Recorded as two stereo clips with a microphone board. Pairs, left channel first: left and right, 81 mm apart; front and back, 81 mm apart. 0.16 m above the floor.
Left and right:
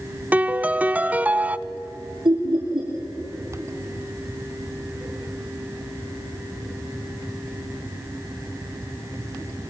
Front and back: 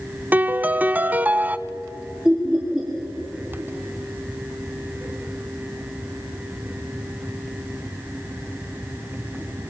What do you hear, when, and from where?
0.3 s a piano: 135° right, 0.5 m
2.2 s laughter: 100° right, 5 m